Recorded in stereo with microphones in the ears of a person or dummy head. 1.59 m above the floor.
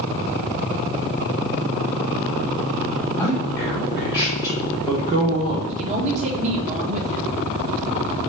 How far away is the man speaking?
About 2.5 m.